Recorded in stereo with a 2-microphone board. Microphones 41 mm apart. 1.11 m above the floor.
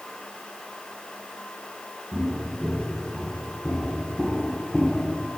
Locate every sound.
2.1 s footsteps: 10° right (ahead or behind), 4 m; by 5.2 s 10° left (ahead or behind), 1.4 m